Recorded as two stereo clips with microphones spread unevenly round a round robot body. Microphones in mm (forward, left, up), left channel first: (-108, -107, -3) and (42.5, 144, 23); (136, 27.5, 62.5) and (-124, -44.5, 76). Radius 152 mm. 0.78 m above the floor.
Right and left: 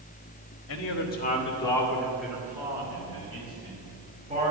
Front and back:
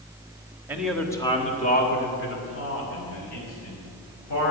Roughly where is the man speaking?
Right.